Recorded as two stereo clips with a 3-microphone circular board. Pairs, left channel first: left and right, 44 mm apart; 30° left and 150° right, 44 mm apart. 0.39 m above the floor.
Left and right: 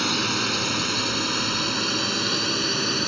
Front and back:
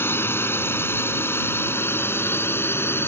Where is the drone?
5° right.